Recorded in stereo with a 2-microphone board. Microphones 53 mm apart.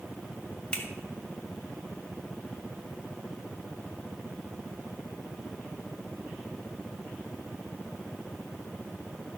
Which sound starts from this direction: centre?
A finger snap, at 0.7 s.